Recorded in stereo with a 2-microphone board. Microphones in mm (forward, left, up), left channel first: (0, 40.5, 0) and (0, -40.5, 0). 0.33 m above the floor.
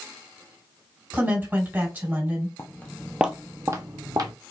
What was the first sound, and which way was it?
A woman speaking, 20° right (ahead or behind).